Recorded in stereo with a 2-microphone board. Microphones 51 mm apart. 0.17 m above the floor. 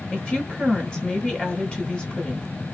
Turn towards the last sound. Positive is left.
turn(degrees=20)  # may be behind; listen again after turning